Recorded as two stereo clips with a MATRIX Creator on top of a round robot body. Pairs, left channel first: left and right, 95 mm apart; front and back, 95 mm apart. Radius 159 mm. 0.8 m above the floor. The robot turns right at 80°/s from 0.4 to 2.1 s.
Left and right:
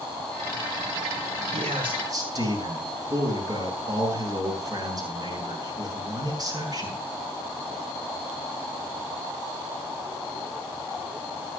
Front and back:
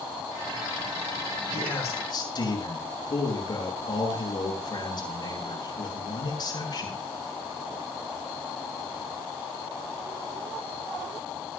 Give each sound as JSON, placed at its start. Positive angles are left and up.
{"t": 1.5, "sound": "a man speaking", "azimuth_deg": -85, "distance_m": 8.5}